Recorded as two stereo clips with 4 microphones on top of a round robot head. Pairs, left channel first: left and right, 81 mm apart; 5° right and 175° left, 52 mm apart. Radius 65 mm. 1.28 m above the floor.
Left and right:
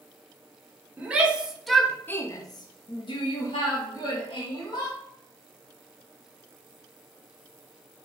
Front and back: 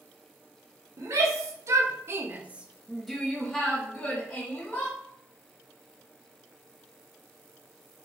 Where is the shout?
160° right, 1.1 m; by 5.0 s 60° left, 1.9 m.